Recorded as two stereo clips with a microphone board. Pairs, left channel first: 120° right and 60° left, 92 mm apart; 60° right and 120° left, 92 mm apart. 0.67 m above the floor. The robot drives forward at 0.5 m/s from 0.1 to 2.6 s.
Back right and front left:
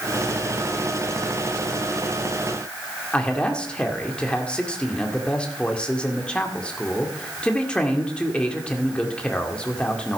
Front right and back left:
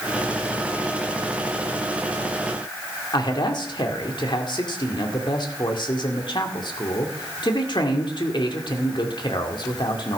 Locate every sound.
3.1 s a man speaking: 45° right, 1.9 m